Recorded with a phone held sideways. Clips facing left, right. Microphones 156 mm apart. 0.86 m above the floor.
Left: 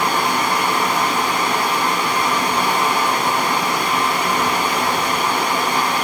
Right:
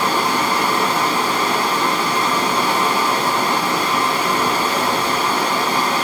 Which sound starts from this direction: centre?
Running water, at 0.0 s.